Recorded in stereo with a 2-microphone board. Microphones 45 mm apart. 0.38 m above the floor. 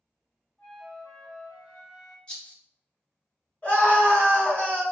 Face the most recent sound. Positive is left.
turn(degrees=35)  # may be behind; listen again after turning